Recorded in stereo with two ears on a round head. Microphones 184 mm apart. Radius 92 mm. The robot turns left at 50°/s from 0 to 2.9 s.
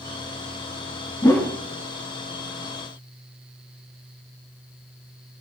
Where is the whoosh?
20° left (ahead or behind), 1.2 m; by 1.6 s 10° left (ahead or behind), 1.2 m.